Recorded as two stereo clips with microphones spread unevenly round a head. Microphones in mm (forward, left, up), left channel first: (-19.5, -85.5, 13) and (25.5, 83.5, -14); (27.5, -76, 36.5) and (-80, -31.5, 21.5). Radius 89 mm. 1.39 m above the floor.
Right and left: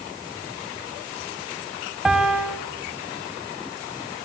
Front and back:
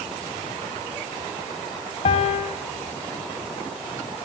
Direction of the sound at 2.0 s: 20° right.